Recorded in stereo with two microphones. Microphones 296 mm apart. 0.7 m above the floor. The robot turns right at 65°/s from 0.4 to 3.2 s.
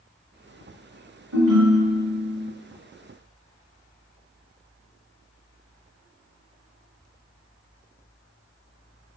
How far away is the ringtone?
About 1.5 m.